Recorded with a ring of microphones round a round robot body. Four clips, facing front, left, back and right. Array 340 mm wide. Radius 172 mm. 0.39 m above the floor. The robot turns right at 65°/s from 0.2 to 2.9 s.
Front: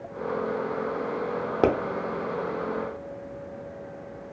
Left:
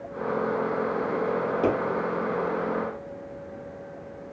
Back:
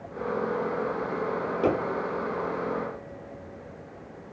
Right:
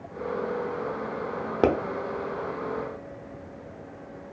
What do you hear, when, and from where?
1.6 s a pop: 45° right, 0.5 m; by 1.7 s 40° right, 0.5 m